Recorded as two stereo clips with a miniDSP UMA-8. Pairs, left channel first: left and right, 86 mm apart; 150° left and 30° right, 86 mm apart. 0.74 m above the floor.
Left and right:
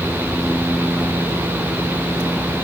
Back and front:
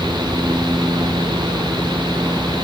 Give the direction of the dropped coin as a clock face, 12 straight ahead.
No dropped coin in this recording.